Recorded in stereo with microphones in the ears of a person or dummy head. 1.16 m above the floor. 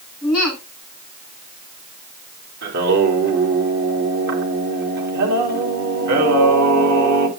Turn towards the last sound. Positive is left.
turn(degrees=-75)  # may be behind; listen again after turning